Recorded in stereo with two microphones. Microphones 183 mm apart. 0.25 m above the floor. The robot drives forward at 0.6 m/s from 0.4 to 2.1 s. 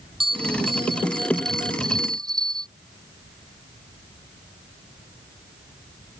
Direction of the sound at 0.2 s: 25° right (ahead or behind).